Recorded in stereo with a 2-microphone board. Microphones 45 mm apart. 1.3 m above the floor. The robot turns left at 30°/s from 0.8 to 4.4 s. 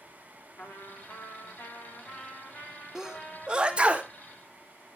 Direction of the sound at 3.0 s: 15° right (ahead or behind).